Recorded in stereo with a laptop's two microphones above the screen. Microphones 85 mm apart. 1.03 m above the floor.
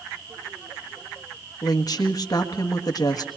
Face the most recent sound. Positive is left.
turn(degrees=50)  # may be behind; listen again after turning